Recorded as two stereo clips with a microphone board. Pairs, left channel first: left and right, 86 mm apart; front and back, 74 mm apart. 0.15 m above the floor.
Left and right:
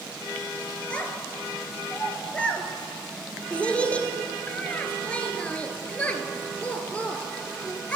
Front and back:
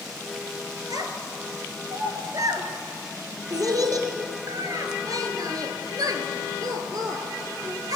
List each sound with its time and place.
0.9 s a child speaking: 165° left, 1.4 m